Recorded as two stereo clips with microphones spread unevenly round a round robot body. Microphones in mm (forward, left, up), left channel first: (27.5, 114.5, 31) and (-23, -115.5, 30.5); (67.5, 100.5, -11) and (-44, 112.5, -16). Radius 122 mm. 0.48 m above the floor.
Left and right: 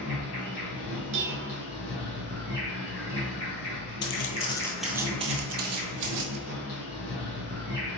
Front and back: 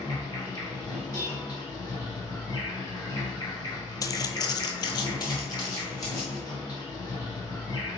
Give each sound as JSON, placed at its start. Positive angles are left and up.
{"t": 0.0, "sound": "an insect", "azimuth_deg": 45, "distance_m": 1.9}
{"t": 1.1, "sound": "dishes clattering", "azimuth_deg": -80, "distance_m": 0.8}
{"t": 4.0, "sound": "footsteps", "azimuth_deg": 45, "distance_m": 0.7}